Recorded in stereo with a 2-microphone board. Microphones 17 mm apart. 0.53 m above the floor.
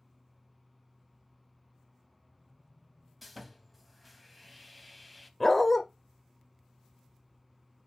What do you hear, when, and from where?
3.2 s sawing: centre (ahead or behind), 0.5 m
5.4 s a dog barking: 15° left (ahead or behind), 0.7 m